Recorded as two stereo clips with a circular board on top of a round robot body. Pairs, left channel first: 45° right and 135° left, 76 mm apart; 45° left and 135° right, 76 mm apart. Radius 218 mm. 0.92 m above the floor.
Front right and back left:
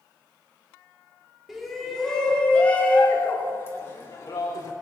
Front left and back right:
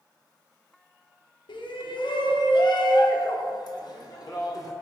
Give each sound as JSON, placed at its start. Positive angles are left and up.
{"t": 1.5, "sound": "a shout", "azimuth_deg": 45, "distance_m": 2.5}